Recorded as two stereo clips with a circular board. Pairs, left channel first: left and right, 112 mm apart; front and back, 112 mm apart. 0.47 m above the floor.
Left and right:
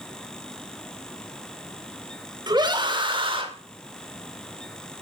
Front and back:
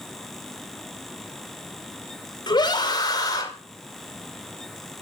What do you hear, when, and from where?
2.5 s a scream: 45° right, 2.5 m; by 3.5 s 55° right, 3 m